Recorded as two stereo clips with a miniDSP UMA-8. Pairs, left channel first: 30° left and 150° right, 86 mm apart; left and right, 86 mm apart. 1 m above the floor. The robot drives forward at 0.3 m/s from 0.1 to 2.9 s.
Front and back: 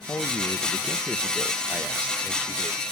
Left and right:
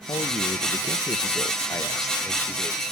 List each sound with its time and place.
0.1 s a man speaking: 85° left, 0.6 m; by 2.8 s 150° left, 1.0 m